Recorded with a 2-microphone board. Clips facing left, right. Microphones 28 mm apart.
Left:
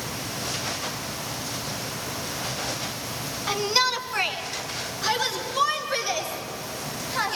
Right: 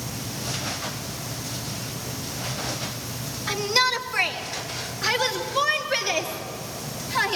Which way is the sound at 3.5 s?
10° left (ahead or behind).